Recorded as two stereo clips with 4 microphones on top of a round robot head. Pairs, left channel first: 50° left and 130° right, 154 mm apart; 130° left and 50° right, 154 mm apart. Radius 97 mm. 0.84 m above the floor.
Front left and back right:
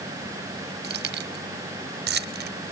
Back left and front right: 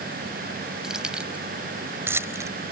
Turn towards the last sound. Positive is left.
turn(degrees=-120)